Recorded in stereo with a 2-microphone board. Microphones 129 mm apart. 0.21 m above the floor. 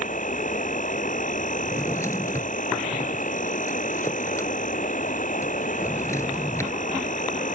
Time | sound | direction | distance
0.0 | an insect | 85° left | ?
1.6 | a drawer | 20° left (ahead or behind) | ?